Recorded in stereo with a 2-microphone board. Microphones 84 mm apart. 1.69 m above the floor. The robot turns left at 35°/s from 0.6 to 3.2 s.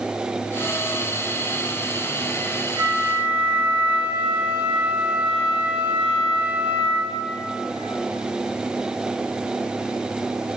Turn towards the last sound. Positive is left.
turn(degrees=-15)  # may be behind; listen again after turning